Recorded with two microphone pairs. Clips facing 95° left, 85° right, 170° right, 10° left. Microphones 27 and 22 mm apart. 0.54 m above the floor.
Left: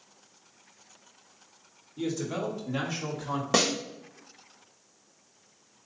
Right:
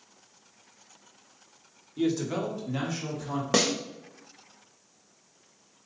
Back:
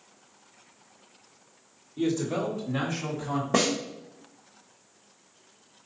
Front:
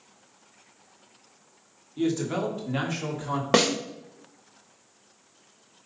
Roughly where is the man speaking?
Ahead right.